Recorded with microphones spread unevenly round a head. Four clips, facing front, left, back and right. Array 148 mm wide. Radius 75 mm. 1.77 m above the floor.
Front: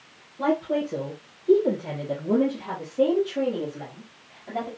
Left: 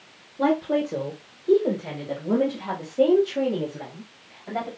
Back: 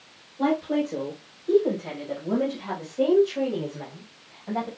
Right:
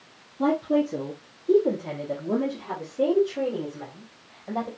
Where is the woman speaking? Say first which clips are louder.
Even, even; 85° left, 2.0 m.